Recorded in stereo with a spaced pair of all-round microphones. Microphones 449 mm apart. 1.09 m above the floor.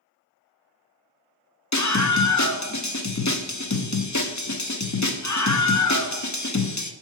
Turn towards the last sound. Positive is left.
turn(degrees=40)  # may be behind; listen again after turning